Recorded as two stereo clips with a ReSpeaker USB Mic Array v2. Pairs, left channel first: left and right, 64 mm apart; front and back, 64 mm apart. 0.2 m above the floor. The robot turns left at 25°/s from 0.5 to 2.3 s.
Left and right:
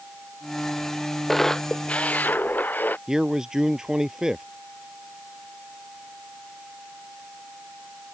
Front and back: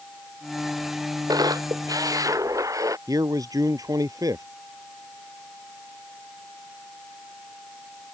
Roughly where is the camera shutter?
Behind.